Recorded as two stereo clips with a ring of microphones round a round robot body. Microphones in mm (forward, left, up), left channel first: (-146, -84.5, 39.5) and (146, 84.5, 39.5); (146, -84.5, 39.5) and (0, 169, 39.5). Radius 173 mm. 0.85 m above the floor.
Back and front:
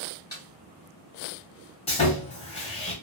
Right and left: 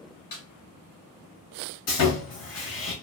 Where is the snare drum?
70° right, 1.7 m.